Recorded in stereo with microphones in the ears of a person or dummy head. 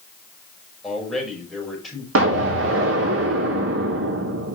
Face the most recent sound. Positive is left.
turn(degrees=-75)  # may be behind; listen again after turning